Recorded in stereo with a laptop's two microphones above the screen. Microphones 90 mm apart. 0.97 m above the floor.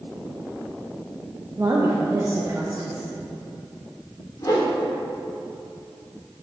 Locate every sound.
1.6 s a woman speaking: 30° right (ahead or behind), 0.7 m
4.4 s a whoosh: 45° left (ahead or behind), 1.9 m